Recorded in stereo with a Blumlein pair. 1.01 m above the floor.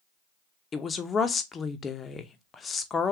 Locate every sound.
0.7 s a woman speaking: 20° left, 0.6 m